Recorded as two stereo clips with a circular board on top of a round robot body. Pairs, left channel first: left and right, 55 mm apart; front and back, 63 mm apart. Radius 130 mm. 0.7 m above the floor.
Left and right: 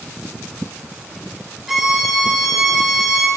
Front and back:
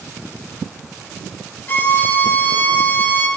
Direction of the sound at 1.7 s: 10° right.